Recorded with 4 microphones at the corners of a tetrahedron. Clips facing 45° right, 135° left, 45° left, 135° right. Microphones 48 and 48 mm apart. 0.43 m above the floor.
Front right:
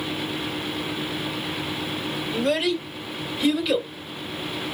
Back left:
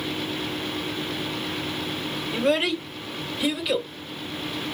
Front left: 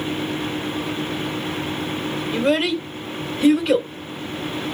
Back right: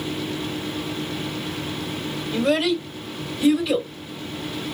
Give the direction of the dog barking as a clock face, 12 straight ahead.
I don't hear a dog barking.